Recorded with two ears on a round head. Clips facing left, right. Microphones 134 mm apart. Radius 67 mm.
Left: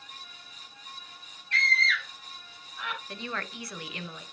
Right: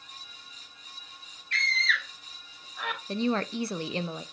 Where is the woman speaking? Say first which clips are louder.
Right 10 dB; 25° right (ahead or behind), 0.5 m.